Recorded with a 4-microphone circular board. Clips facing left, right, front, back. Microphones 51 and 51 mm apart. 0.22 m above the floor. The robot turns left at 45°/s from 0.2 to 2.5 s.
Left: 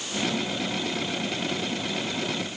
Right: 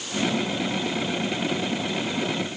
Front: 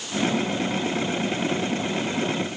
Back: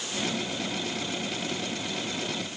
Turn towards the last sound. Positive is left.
No sound to turn to.